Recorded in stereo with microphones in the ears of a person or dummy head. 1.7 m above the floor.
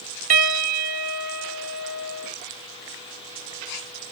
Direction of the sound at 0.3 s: 45° right (ahead or behind).